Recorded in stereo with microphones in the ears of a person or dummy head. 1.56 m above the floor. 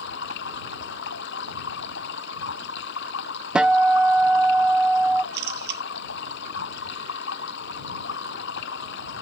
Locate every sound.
0.0 s running water: 70° left (ahead or behind)
3.5 s a guitar: 5° right (ahead or behind)
5.3 s a camera shutter: 65° right (ahead or behind)